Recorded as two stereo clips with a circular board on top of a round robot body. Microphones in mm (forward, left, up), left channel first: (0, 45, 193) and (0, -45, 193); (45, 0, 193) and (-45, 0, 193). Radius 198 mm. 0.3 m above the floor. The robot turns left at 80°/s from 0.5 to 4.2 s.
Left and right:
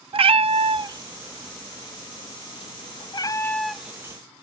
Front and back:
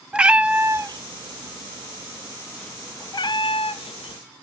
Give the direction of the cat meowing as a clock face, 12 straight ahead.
3 o'clock.